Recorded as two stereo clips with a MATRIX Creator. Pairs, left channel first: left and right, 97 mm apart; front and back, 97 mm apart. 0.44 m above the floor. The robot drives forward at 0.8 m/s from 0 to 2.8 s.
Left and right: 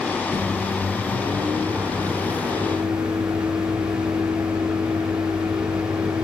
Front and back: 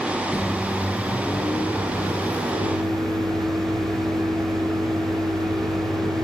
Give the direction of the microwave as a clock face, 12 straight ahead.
3 o'clock.